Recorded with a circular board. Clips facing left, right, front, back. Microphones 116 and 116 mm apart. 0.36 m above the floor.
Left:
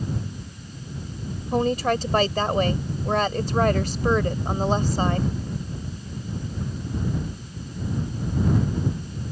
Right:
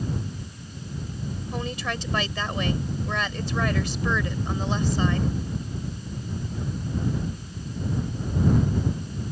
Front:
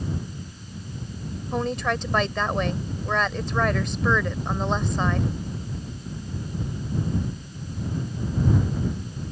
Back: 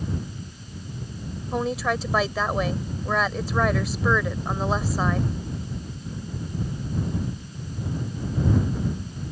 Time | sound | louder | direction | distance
1.5 | a woman speaking | left 11 dB, back 1 dB | 95° left | ?